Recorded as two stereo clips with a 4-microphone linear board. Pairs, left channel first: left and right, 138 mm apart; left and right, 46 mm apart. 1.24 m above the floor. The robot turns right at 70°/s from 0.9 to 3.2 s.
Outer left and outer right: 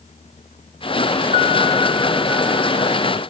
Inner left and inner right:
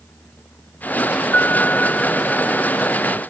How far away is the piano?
About 1.1 m.